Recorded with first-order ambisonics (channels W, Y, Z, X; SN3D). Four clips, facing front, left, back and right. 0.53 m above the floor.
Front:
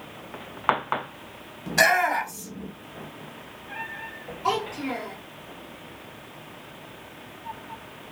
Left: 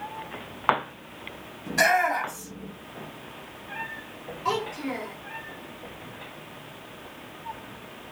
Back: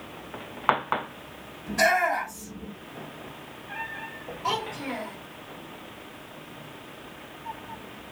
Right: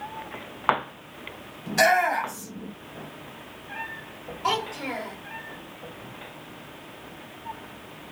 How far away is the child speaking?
About 1.7 m.